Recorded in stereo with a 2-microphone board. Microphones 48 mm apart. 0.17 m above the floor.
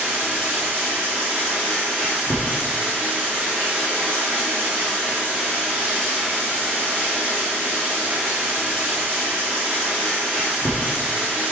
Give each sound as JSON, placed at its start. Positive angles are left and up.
{"t": 0.0, "sound": "running water", "side_deg": -55, "distance_m": 2.5}